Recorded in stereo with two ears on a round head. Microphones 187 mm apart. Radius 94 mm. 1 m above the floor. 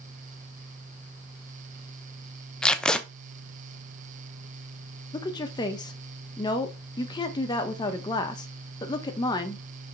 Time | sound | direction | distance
2.6 | tape being pulled | 5° left (ahead or behind) | 0.5 m
5.1 | a woman speaking | 20° left (ahead or behind) | 1.1 m